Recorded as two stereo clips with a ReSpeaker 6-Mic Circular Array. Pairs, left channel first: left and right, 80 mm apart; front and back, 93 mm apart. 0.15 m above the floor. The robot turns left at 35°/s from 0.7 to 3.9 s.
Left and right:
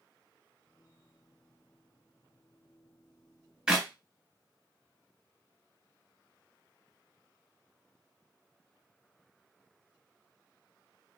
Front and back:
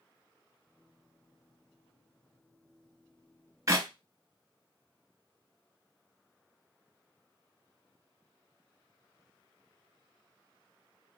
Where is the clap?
160° right, 1.1 m; by 3.9 s 165° right, 1.1 m.